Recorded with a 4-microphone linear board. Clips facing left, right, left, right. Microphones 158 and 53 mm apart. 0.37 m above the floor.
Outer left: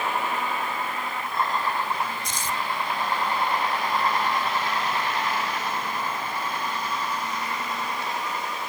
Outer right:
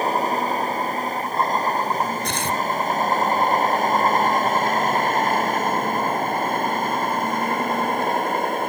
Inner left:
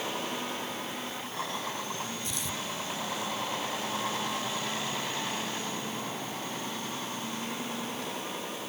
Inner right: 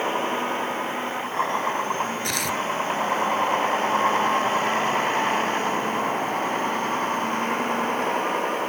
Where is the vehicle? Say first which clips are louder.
Outer right 6 dB, inner right 10 dB; 40° right (ahead or behind); by 8.7 s 50° right (ahead or behind).